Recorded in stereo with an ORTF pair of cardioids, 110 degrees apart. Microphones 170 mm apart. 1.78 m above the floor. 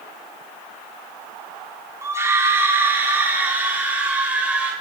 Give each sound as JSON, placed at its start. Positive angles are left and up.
{"t": 2.0, "sound": "a scream", "azimuth_deg": -15, "distance_m": 4.0}